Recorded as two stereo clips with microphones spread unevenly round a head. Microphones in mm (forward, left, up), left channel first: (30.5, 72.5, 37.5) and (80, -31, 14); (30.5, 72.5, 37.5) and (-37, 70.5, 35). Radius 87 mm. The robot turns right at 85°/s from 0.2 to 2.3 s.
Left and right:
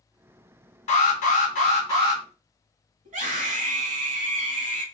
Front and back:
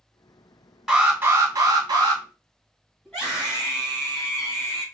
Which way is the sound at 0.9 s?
100° left.